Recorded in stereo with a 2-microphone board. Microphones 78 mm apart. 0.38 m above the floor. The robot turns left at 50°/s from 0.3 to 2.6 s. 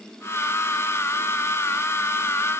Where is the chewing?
I don't hear chewing.